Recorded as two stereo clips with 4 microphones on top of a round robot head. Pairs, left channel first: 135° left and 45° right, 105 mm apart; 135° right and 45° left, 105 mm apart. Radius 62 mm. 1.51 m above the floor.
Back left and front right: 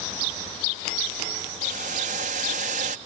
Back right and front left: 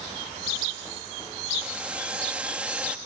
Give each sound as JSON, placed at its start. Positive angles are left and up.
{"t": 1.6, "sound": "boiling", "azimuth_deg": -35}